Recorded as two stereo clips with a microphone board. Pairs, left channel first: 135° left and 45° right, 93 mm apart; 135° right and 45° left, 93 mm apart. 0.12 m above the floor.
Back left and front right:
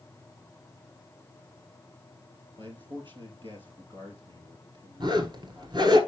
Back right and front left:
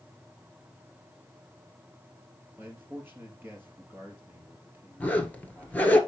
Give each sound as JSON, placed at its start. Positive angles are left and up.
{"t": 2.6, "sound": "a man speaking", "azimuth_deg": -20, "distance_m": 2.5}
{"t": 5.0, "sound": "a zipper", "azimuth_deg": -65, "distance_m": 1.4}